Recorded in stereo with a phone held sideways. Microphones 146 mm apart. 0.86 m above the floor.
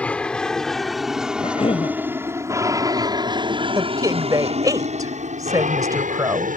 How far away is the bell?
I don't hear a bell.